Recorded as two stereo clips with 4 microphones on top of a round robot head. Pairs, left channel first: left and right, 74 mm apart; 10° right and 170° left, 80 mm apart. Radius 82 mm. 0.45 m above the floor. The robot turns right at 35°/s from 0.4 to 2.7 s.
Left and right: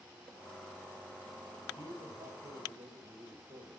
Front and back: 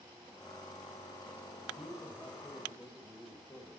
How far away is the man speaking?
About 2.5 m.